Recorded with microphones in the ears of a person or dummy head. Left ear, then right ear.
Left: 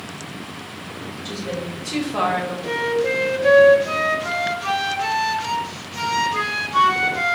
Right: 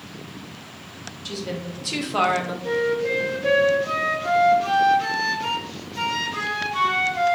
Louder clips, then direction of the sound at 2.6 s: Left 2 dB; 15° left (ahead or behind).